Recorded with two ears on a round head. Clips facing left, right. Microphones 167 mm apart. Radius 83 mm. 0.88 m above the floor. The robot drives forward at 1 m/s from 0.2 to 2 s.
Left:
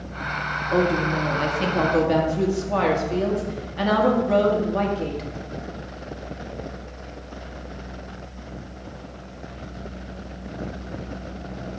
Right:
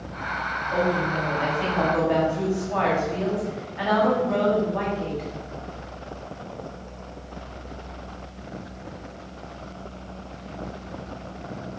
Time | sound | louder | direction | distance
0.7 | a woman speaking | left 3 dB | 60° left (ahead or behind) | 1.5 m